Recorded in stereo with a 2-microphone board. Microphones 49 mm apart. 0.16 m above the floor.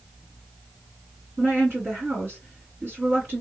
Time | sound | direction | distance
1.4 | a woman speaking | 40° right (ahead or behind) | 2 m